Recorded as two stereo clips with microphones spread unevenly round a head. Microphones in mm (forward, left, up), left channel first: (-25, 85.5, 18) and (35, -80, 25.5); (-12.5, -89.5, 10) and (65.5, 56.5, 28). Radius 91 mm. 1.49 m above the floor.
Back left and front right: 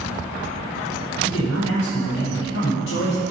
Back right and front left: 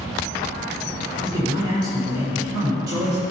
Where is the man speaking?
130° left, 4.5 m.